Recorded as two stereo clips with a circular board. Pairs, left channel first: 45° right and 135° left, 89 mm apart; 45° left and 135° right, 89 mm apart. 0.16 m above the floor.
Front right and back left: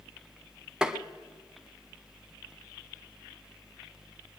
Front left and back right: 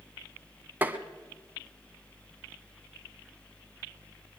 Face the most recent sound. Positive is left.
turn(degrees=-160)